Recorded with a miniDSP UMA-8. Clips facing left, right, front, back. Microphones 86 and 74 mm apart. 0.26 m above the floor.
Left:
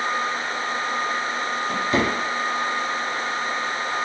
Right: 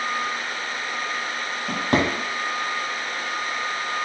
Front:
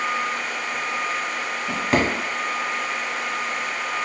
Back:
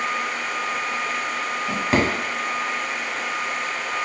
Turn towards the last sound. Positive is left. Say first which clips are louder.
# right 1 dB, even
turn(degrees=-95)